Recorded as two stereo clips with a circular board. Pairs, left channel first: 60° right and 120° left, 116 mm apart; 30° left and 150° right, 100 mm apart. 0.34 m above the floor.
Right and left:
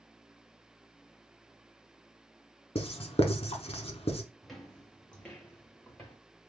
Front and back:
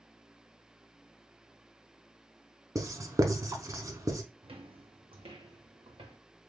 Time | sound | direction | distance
2.8 | writing | 95° right | 0.6 m
4.4 | footsteps | 150° right | 0.7 m